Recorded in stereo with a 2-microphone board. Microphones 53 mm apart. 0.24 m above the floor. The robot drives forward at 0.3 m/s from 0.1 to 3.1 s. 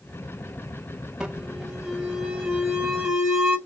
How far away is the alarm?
About 1.4 m.